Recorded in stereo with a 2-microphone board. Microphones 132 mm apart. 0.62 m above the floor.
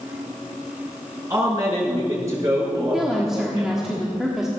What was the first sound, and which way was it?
A man speaking, 25° right (ahead or behind).